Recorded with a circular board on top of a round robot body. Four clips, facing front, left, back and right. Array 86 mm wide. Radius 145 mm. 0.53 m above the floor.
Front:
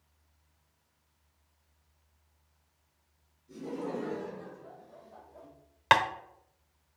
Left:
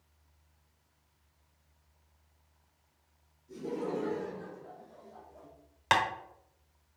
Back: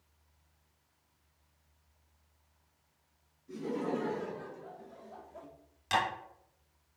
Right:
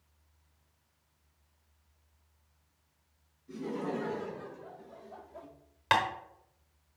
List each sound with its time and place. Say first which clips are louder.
3.5 s laughter: even, back 2 dB; 130° right, 3 m; by 5.5 s 140° right, 1.1 m
5.9 s tapping: even, front 7 dB; 10° left, 0.9 m